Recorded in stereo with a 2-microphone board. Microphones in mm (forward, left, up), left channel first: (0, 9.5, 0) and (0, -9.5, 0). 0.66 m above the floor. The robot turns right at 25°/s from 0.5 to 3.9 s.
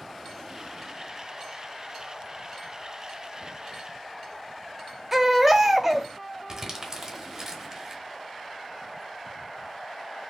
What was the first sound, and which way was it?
A baby crying, 10° right (ahead or behind).